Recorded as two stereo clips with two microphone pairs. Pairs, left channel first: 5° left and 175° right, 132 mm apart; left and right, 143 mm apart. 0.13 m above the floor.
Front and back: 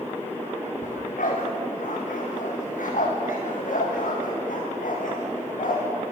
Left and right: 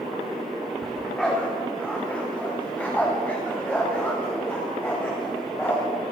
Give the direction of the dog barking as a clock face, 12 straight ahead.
12 o'clock.